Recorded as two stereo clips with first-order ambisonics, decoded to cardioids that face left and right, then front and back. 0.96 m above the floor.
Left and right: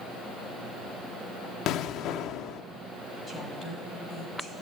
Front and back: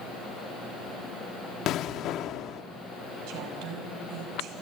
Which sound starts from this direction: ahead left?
An explosion, at 1.7 s.